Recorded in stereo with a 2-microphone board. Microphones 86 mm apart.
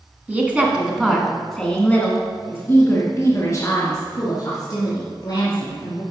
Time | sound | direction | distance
0.3 | a woman speaking | 20° right (ahead or behind) | 1.3 m